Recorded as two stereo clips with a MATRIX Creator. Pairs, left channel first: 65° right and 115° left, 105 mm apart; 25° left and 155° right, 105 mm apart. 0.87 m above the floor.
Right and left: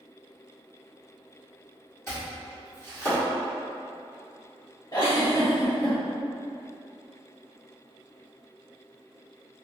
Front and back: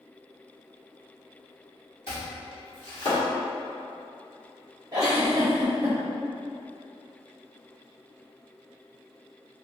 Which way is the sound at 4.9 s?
110° right.